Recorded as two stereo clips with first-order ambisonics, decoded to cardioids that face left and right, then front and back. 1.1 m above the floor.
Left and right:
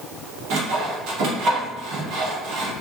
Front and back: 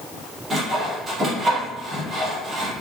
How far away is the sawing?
About 0.8 m.